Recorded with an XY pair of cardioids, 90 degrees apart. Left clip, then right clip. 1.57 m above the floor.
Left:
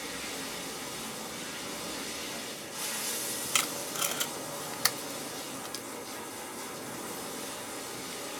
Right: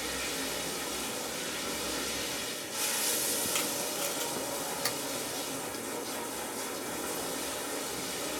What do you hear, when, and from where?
0.0 s running water: 65° right, 1.0 m
3.5 s tape being pulled: 60° left, 0.6 m